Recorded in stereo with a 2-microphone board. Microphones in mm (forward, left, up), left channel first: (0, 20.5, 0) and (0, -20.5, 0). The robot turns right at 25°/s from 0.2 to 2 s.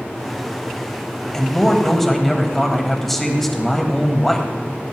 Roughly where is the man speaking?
Centre.